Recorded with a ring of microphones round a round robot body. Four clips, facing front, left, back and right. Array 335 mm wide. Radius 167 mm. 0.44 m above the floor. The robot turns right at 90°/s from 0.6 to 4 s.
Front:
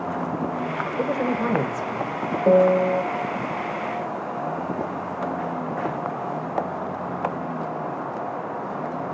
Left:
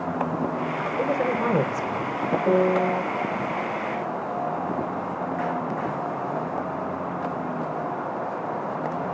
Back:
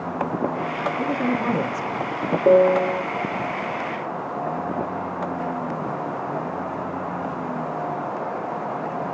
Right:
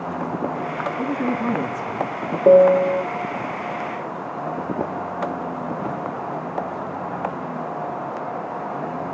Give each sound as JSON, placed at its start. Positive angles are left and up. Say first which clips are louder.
{"t": 1.0, "sound": "a man speaking", "louder": "left 1 dB, front 1 dB", "azimuth_deg": 25, "distance_m": 2.0}
{"t": 2.5, "sound": "a piano", "louder": "right 10 dB, back 1 dB", "azimuth_deg": -115, "distance_m": 1.6}